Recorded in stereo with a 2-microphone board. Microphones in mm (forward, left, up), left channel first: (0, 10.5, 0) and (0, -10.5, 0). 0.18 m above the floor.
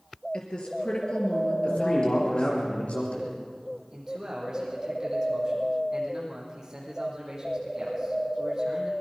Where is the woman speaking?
55° left (ahead or behind), 3.5 m.